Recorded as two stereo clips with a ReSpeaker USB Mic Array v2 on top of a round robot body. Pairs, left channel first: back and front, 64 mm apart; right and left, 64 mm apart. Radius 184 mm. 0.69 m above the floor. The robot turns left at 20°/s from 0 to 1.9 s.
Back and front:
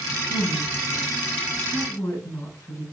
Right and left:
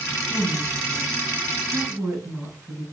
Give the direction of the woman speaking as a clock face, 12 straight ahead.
6 o'clock.